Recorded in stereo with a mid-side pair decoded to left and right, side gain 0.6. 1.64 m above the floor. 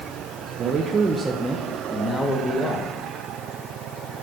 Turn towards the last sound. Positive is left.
turn(degrees=30)